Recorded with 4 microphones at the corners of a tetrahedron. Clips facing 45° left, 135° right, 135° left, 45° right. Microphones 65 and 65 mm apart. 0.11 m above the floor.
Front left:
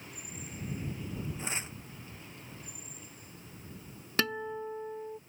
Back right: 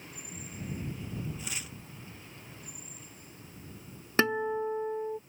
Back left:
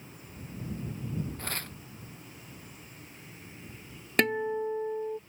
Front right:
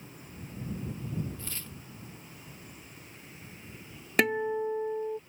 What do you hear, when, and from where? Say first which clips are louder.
1.4 s tearing paper: front left 3 dB, back left 6 dB; 105° left
4.2 s a guitar: back right 6 dB, even; 125° right